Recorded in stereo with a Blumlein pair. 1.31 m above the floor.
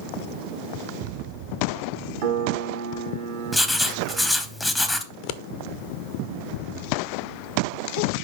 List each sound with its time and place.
2.2 s a piano: 55° right, 1.2 m
3.5 s writing: straight ahead, 0.7 m
5.1 s scissors: 45° left, 0.5 m